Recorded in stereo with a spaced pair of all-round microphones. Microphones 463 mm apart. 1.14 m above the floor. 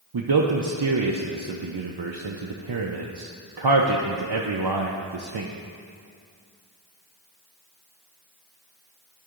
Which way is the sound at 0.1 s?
55° right (ahead or behind).